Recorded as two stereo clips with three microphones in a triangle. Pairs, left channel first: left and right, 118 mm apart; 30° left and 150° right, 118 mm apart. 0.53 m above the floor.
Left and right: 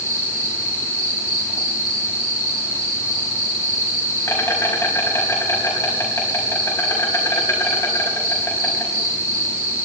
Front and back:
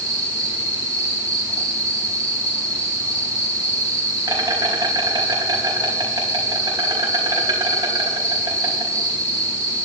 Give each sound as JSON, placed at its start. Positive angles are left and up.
{"t": 0.0, "sound": "an insect", "azimuth_deg": 155, "distance_m": 4.5}